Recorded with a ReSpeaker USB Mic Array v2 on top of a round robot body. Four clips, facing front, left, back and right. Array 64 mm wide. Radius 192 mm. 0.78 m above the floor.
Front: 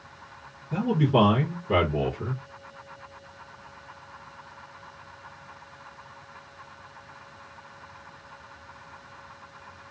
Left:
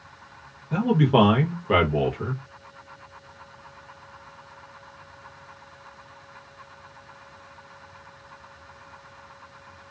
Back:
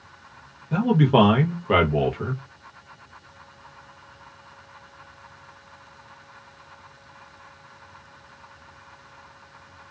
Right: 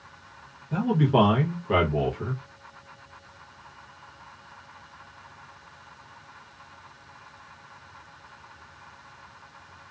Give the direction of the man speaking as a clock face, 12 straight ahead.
7 o'clock.